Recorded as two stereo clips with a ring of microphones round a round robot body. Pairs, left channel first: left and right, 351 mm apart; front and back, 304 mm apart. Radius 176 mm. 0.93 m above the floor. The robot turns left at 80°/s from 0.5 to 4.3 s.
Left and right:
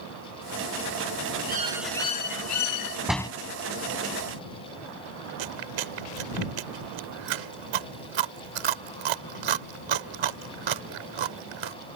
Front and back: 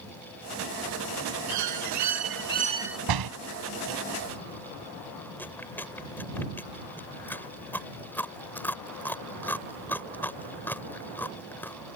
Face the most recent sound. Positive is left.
turn(degrees=-85)